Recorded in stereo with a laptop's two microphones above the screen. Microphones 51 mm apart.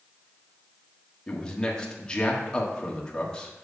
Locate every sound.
1.3 s a man speaking: 15° left (ahead or behind), 1.7 m